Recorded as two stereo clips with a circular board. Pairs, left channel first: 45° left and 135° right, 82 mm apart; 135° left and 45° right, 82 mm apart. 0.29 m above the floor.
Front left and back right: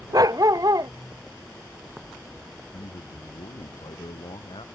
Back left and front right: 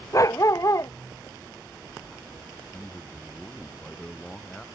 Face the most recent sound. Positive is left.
turn(degrees=55)